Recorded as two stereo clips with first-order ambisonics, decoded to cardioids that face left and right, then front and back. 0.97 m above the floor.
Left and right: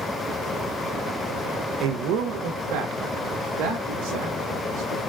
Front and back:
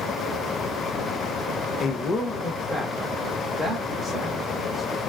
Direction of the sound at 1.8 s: 60° right.